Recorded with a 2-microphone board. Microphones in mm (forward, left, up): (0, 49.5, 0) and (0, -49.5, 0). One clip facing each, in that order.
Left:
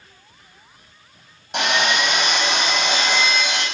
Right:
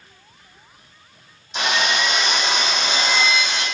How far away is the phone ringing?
No phone ringing in this recording.